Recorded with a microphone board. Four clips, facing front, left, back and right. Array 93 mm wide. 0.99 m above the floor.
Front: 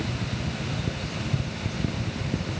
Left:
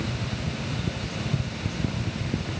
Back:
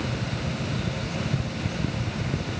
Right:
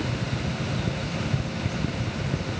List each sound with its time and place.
Only background noise.